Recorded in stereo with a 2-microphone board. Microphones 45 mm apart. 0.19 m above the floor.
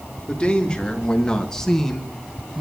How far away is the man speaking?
About 2.5 m.